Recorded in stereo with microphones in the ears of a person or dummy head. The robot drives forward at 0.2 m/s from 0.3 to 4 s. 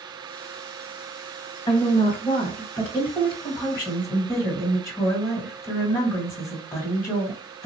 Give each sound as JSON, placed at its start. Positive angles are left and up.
{"t": 1.7, "sound": "a woman speaking", "side_deg": 20, "distance_m": 1.2}